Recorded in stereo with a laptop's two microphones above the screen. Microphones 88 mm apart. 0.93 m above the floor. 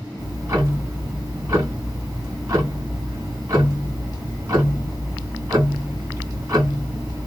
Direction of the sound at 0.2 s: 40° right (ahead or behind).